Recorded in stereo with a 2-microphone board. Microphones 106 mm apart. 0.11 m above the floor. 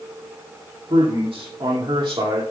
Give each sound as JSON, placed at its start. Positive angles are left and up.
{"t": 0.9, "sound": "a man speaking", "side_deg": -65, "distance_m": 4.5}